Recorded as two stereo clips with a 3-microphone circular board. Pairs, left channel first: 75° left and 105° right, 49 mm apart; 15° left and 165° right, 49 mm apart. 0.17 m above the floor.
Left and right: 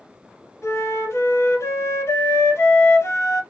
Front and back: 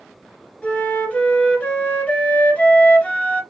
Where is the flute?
75° left, 1.3 m.